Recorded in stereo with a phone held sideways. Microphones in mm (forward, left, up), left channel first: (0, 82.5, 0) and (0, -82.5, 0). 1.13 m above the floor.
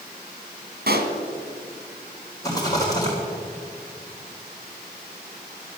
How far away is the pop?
About 1.5 m.